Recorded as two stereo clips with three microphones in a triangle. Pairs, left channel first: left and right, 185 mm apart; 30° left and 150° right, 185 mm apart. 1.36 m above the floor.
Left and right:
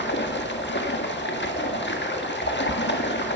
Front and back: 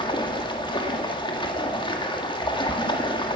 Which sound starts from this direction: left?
Running water, at 0.0 s.